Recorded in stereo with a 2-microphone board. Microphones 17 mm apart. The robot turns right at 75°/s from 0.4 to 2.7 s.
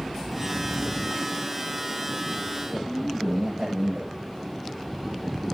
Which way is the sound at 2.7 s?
50° right (ahead or behind).